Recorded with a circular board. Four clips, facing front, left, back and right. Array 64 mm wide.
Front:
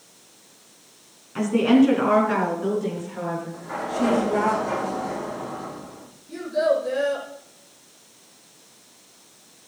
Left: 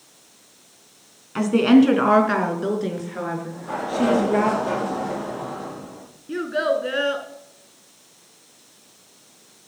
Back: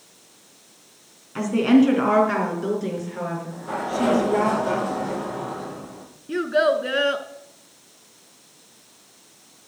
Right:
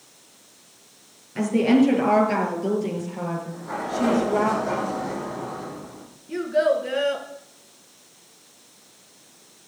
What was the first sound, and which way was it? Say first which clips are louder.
A woman speaking: left 4 dB, even; 95° left.